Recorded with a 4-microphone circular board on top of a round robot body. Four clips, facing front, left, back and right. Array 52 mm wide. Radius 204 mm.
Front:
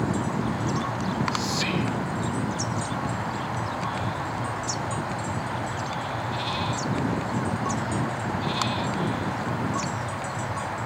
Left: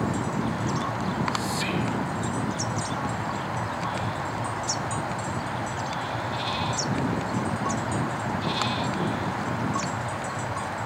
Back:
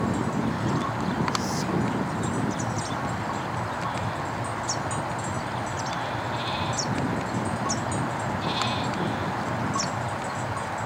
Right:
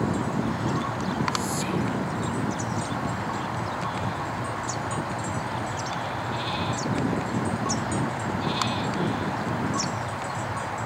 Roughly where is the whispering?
Ahead left.